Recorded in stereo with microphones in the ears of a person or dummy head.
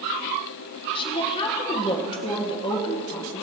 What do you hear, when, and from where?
0.9 s a woman speaking: 30° left (ahead or behind), 1.6 m